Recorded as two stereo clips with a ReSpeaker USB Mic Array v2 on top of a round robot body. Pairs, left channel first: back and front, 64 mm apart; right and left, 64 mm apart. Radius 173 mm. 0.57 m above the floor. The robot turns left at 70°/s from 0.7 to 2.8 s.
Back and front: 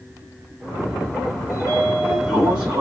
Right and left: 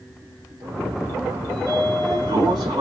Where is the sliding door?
145° left, 3 m; by 2.8 s 55° left, 3 m.